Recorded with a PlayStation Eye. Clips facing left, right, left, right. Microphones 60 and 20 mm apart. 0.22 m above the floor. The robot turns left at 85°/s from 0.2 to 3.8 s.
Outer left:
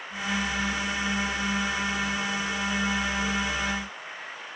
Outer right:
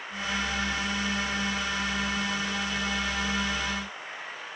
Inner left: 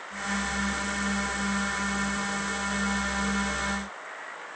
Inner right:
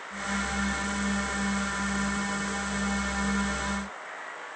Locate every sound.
Only background noise.